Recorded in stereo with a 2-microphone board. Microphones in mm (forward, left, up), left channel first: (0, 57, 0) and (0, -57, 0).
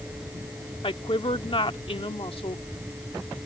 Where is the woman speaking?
50° left (ahead or behind).